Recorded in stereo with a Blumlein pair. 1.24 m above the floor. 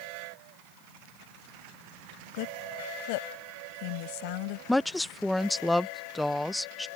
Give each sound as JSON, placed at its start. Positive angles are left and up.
{"t": 2.3, "sound": "a woman speaking", "azimuth_deg": 45}
{"t": 4.7, "sound": "a woman speaking", "azimuth_deg": 5}